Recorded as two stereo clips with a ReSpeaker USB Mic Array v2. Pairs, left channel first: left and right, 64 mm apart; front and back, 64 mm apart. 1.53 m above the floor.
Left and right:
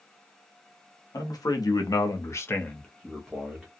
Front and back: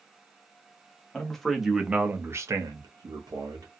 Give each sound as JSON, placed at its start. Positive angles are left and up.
{"t": 1.1, "sound": "a man speaking", "azimuth_deg": 80, "distance_m": 0.9}